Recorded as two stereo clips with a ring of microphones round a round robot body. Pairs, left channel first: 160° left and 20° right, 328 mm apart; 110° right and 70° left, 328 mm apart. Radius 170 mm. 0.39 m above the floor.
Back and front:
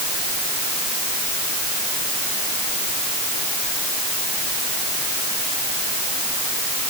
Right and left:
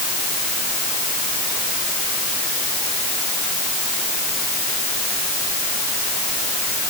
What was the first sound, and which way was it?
Only background noise.